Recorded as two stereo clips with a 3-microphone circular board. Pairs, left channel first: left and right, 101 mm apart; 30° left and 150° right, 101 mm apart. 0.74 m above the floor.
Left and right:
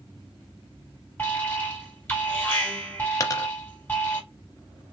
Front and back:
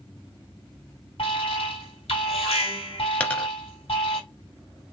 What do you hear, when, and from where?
1.2 s an alarm: 20° left, 2 m
3.2 s a dropped coin: 95° left, 0.6 m